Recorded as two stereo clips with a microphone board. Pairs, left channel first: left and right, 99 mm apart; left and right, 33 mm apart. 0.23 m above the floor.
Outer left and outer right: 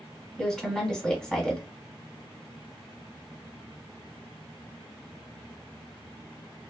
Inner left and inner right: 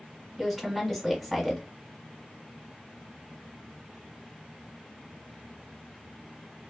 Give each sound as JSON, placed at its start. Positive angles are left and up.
{"t": 0.4, "sound": "a woman speaking", "side_deg": 5, "distance_m": 1.2}